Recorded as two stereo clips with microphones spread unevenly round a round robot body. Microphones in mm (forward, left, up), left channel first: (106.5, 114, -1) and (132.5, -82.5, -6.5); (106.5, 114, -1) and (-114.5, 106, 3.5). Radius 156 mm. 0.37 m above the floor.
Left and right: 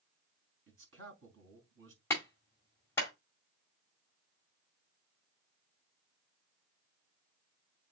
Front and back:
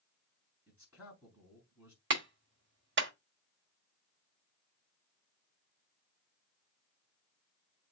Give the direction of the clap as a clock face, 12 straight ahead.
6 o'clock.